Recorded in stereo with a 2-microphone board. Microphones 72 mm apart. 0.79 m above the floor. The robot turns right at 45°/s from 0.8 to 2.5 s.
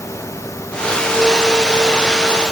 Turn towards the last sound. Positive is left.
No sound to turn to.